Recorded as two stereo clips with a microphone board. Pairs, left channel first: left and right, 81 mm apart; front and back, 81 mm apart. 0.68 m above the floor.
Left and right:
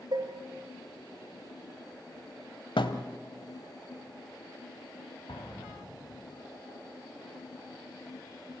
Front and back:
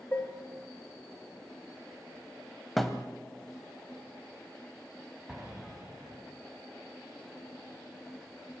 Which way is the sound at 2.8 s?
85° left.